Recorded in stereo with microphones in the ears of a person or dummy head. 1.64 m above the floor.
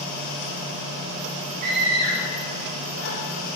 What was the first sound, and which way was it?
A scream, 35° right (ahead or behind).